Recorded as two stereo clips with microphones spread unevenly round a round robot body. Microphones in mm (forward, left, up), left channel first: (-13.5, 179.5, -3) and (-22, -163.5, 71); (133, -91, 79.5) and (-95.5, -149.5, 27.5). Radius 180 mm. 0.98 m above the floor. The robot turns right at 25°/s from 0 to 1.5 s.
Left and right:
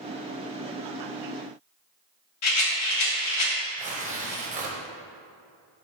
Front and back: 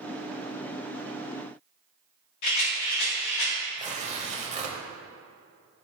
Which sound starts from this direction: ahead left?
A rattle, at 2.4 s.